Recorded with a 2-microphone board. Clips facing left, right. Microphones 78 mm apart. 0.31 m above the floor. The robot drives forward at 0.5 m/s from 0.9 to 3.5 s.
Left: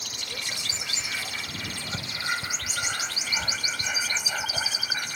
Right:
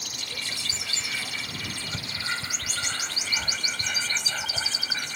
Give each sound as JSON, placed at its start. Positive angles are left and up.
{"t": 0.1, "sound": "whispering", "side_deg": 20}